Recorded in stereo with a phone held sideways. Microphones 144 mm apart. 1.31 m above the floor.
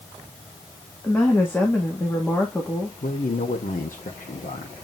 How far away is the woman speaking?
About 1.9 m.